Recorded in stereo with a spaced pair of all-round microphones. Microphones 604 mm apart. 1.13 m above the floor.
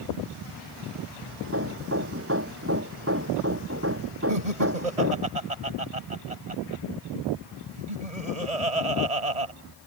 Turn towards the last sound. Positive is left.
turn(degrees=-85)